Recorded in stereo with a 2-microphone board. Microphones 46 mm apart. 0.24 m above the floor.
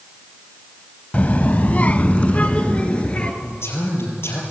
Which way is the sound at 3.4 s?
65° left (ahead or behind).